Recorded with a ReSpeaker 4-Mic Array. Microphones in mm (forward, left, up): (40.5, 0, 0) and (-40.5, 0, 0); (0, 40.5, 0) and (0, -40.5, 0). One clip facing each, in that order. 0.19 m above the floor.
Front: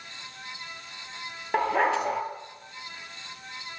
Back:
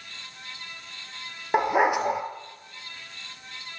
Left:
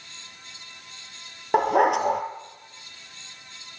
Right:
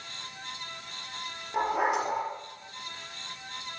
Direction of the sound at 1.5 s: 105° left.